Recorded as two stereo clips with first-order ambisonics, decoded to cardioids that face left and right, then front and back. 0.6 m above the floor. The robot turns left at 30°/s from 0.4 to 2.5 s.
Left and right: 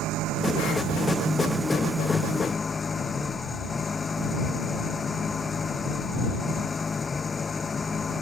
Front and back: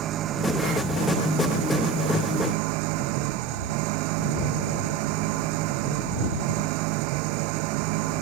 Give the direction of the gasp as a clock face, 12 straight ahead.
No gasp in this recording.